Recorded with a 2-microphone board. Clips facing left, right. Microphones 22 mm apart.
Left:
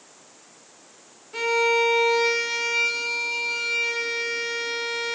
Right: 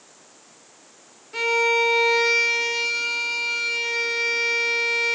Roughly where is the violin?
Centre.